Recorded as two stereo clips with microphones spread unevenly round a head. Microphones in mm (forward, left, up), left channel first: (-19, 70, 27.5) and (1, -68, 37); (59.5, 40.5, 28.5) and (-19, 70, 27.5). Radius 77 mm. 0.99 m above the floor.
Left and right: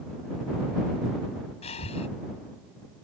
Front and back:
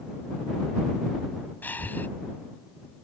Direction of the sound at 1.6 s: 50° left.